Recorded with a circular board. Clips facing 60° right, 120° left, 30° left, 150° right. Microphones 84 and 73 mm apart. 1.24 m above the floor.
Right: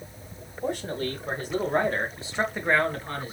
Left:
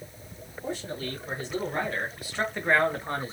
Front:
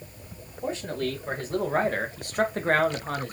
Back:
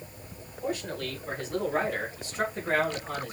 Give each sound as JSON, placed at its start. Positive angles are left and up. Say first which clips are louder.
{"t": 0.6, "sound": "a man speaking", "louder": "right 5 dB, front 3 dB", "azimuth_deg": -30, "distance_m": 2.5}